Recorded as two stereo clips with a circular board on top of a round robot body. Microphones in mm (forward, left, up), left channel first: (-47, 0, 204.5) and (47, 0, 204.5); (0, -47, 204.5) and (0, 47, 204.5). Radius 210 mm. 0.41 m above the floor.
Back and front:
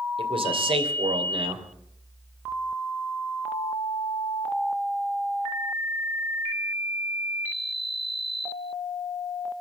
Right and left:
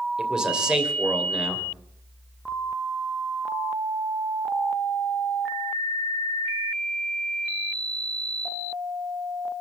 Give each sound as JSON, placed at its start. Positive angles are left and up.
{"t": 0.2, "sound": "a man speaking", "azimuth_deg": 10, "distance_m": 3.0}